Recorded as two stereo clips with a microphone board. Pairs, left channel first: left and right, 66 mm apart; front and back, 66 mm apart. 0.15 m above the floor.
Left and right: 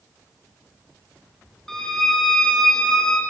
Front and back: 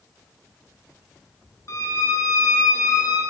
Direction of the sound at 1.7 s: 10° left.